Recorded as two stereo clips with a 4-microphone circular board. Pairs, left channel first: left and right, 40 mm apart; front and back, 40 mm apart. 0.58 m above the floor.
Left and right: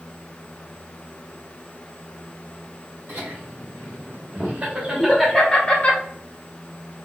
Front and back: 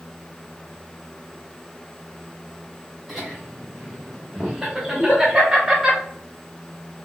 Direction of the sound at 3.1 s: 95° right.